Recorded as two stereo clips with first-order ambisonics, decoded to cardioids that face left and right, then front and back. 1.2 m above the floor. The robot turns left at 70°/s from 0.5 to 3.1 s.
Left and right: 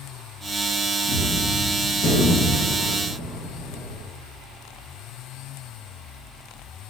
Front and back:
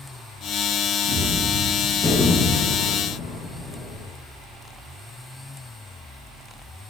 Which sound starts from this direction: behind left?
A gunshot, at 1.1 s.